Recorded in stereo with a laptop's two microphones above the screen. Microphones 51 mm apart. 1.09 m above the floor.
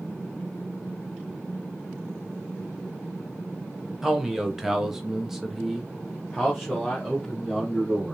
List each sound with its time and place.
4.0 s a man speaking: 10° right (ahead or behind), 0.9 m; by 8.1 s centre (ahead or behind), 1.9 m